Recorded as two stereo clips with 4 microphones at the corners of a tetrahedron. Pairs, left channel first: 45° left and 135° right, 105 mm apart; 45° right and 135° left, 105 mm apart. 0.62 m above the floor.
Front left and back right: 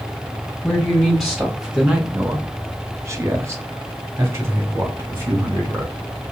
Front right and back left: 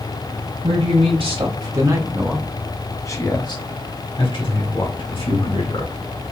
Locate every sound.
0.6 s a man speaking: 130° left, 1.4 m; by 5.9 s 70° right, 2.5 m